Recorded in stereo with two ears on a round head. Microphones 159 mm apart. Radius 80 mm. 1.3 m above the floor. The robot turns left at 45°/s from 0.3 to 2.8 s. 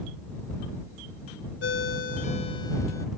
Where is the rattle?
No rattle in this recording.